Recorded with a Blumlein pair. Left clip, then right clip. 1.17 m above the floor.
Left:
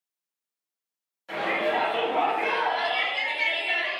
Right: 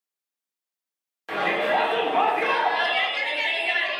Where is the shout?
60° right, 0.8 m.